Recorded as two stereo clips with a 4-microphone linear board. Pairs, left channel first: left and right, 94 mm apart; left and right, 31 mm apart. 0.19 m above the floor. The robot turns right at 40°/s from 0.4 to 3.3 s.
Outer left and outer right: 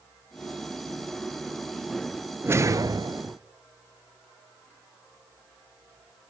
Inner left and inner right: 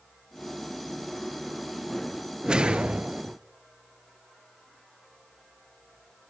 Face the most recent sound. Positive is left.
turn(degrees=-120)